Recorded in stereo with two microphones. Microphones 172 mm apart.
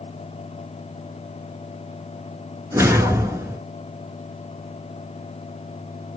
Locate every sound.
2.7 s a whoosh: 20° right (ahead or behind), 0.9 m